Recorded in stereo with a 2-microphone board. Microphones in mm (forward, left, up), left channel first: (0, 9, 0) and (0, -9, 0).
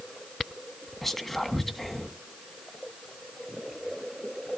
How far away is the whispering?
About 1.7 m.